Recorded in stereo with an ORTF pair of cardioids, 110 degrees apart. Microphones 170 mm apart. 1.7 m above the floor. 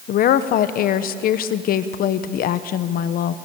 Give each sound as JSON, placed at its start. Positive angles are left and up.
{"t": 0.1, "sound": "a woman speaking", "azimuth_deg": 60, "distance_m": 1.1}